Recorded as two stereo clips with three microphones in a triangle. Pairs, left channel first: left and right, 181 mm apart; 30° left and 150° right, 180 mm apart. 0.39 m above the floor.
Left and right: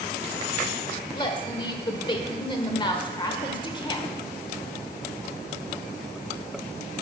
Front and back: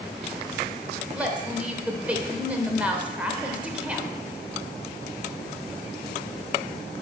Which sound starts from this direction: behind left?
A woman speaking, at 1.1 s.